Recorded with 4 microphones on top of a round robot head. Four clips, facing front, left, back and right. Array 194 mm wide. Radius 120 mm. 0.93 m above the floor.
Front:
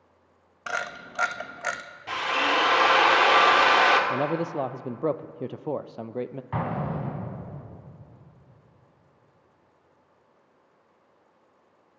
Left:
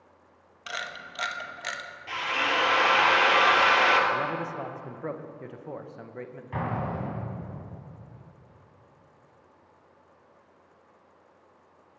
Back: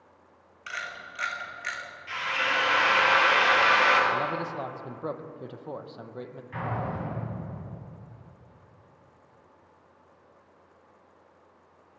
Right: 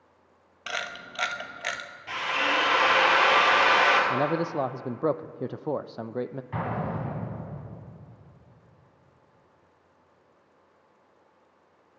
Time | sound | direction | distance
0.7 | a camera shutter | 15° right | 1.1 m
2.1 | a drill | straight ahead | 2.5 m
4.1 | a man speaking | 50° right | 0.7 m
6.5 | an explosion | 5° left | 8.5 m